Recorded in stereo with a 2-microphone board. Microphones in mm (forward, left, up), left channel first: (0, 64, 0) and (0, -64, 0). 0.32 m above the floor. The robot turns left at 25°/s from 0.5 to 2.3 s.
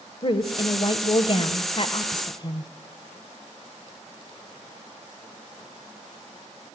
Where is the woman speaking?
105° left, 1.1 m; by 2.7 s 60° left, 1.1 m.